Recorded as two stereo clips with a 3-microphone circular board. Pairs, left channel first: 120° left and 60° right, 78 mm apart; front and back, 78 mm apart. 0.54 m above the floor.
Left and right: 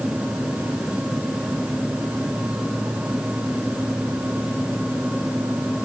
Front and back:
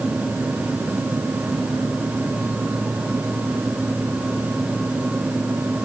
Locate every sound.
Only background noise.